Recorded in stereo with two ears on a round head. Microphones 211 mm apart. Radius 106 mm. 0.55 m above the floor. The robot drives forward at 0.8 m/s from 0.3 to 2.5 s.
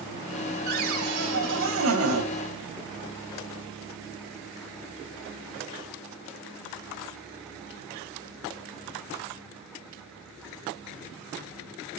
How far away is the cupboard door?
About 2.5 m.